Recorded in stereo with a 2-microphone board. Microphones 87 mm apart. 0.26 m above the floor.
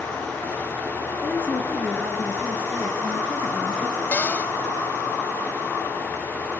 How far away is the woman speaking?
About 3.5 m.